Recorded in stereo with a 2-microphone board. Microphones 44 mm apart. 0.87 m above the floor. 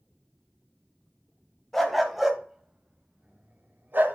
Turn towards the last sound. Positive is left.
turn(degrees=-55)  # may be behind; listen again after turning